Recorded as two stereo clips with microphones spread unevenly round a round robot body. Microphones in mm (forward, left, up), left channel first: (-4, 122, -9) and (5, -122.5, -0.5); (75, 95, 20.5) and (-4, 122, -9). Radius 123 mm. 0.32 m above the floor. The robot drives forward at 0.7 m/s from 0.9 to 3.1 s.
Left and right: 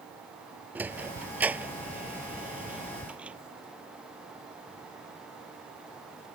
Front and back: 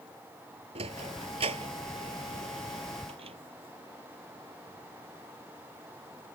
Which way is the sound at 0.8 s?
170° right.